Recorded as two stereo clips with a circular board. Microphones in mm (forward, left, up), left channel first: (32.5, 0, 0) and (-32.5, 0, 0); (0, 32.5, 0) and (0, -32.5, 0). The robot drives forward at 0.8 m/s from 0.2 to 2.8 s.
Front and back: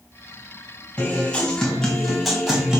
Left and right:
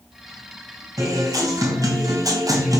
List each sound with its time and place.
1.0 s a guitar: 65° right, 3 m; by 2.8 s 100° right, 2.5 m